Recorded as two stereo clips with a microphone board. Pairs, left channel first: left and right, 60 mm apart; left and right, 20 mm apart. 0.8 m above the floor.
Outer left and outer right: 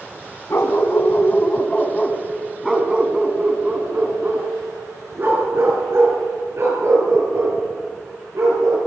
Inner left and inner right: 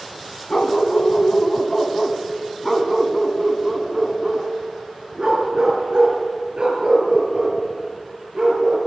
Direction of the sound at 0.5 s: 50° left (ahead or behind).